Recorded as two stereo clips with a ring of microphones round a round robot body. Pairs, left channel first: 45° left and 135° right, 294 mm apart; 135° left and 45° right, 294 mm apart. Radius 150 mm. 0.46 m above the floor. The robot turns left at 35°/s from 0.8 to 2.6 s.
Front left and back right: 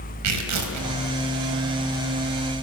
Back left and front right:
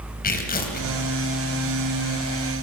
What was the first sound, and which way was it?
Tearing paper, 165° right.